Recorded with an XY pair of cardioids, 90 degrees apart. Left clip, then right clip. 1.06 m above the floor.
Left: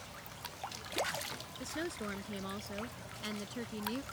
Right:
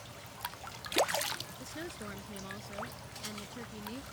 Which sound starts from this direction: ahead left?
A woman speaking, at 1.6 s.